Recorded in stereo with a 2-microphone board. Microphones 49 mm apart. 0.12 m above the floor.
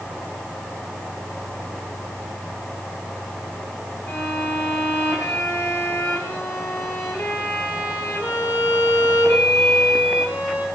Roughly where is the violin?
Left.